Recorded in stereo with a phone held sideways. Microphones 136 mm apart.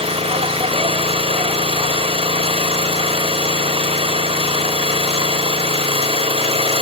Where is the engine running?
50° right (ahead or behind), 3.5 m.